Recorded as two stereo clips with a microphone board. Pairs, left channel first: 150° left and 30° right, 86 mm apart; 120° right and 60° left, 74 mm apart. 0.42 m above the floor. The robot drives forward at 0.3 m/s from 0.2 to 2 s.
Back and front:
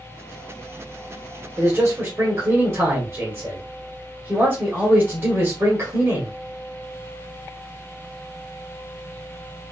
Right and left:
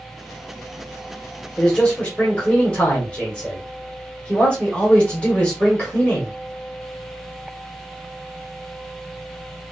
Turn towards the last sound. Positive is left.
turn(degrees=-60)